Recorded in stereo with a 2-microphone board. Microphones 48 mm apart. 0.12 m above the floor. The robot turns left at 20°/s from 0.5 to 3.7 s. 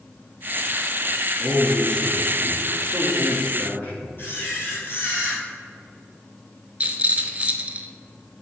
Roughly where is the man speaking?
Behind.